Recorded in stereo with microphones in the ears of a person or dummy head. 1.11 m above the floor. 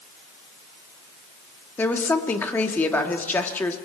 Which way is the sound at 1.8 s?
10° left (ahead or behind).